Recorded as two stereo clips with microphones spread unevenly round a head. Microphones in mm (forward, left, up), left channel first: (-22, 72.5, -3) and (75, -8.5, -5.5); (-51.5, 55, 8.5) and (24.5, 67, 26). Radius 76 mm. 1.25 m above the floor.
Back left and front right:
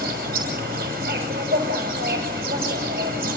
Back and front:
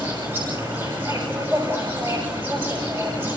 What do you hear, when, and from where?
0.0 s an insect: 65° right, 6.5 m